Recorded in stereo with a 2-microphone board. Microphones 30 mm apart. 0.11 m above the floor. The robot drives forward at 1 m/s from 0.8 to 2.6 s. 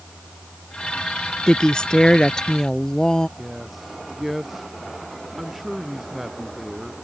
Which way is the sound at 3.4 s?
5° right (ahead or behind).